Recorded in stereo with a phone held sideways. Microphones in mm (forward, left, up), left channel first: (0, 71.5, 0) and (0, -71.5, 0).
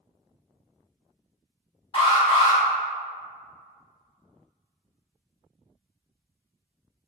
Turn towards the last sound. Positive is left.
turn(degrees=40)  # may be behind; listen again after turning